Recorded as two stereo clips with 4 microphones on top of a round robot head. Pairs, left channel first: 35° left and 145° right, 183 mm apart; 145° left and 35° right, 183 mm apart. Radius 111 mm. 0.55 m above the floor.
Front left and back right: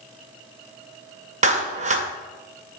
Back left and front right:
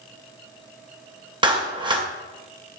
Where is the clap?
100° right, 1.9 m.